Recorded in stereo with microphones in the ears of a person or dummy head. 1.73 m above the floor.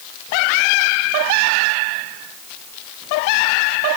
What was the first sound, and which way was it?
Only background noise.